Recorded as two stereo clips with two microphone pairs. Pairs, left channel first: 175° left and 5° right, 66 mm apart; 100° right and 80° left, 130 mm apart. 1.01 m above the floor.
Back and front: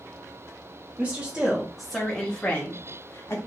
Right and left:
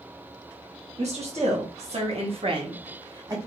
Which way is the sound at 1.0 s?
60° left.